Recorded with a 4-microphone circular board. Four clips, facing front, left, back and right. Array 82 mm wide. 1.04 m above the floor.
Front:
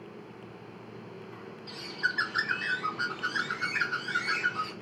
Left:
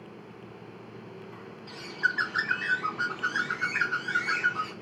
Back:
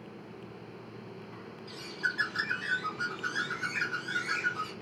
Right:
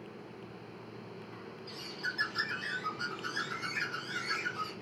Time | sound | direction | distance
1.7 | a bird | 70° left | 0.7 m